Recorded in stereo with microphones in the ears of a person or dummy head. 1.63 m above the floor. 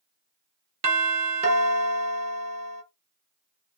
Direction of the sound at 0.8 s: 30° right (ahead or behind).